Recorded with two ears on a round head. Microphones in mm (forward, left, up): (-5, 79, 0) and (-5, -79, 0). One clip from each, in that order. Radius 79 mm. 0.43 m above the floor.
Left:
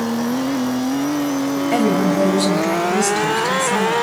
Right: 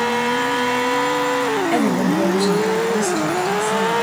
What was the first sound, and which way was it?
A woman speaking, centre (ahead or behind).